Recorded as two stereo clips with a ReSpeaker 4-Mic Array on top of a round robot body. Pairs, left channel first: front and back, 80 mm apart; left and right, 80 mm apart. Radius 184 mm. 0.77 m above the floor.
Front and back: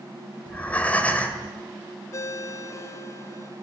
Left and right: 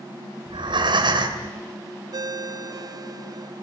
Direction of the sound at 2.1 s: 50° right.